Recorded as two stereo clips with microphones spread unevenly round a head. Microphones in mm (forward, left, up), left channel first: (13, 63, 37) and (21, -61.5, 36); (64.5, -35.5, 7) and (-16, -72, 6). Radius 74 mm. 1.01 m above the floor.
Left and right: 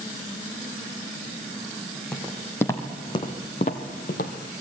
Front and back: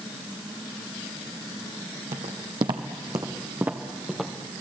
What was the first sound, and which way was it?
Footsteps, straight behind.